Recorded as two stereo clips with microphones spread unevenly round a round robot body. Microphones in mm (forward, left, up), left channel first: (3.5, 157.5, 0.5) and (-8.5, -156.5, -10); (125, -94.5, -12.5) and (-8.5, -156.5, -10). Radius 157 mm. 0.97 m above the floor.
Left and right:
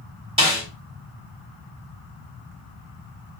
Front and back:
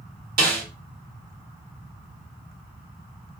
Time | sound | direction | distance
0.4 | a snare drum | 165° right | 2 m